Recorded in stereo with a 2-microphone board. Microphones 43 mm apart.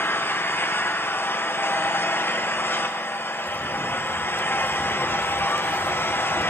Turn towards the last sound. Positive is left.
turn(degrees=55)  # may be behind; listen again after turning